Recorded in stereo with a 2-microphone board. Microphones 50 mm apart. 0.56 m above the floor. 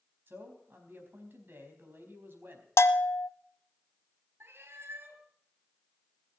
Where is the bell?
75° left (ahead or behind), 0.8 m.